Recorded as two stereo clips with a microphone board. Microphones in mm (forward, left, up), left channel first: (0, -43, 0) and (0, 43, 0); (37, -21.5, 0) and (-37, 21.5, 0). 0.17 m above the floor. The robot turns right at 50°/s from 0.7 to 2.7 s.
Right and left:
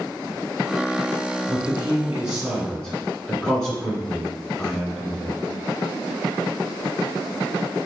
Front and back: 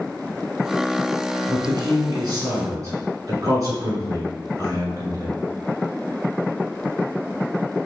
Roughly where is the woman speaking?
Behind left.